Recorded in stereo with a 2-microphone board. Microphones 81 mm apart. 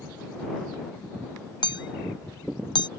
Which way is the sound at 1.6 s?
65° left (ahead or behind).